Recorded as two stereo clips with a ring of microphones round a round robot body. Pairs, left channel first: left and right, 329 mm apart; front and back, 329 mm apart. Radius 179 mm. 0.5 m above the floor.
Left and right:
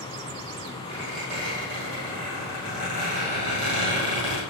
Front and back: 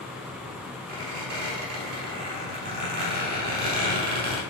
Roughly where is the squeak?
Behind right.